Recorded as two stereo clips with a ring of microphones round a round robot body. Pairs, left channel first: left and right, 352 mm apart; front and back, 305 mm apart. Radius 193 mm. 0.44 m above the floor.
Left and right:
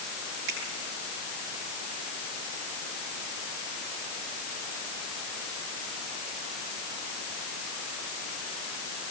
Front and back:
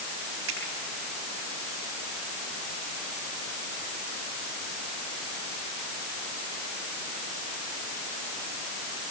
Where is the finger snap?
125° right, 10 m.